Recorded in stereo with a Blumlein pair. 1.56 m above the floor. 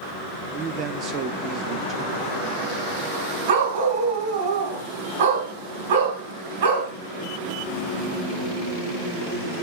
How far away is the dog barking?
About 4.5 m.